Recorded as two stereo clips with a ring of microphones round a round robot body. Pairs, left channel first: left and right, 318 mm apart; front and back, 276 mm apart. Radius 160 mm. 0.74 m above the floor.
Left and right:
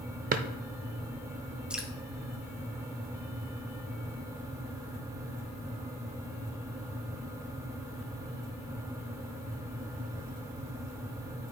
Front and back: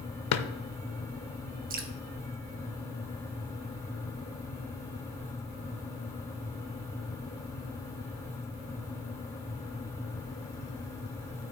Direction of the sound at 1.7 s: 175° right.